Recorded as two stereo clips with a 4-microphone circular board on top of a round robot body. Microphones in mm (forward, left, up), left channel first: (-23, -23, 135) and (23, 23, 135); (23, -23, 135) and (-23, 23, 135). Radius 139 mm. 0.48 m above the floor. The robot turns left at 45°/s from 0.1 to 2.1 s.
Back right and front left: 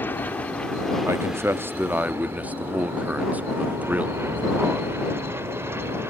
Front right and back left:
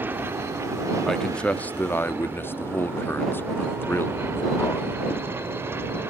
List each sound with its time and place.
0.0 s an aircraft: straight behind; by 6.1 s 90° left
1.1 s a man speaking: 40° left; by 5.0 s 10° right